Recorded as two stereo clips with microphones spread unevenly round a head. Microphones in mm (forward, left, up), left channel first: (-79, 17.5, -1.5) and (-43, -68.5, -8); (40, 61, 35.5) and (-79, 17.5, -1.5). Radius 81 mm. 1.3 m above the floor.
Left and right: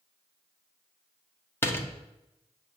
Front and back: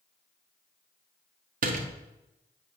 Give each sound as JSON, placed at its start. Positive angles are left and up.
{"t": 1.6, "sound": "a door slam", "azimuth_deg": 180, "distance_m": 1.3}